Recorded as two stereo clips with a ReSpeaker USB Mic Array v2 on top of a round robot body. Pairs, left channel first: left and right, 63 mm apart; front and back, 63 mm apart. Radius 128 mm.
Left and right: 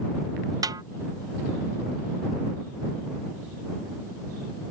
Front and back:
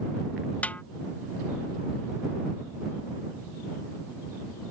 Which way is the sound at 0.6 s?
70° right.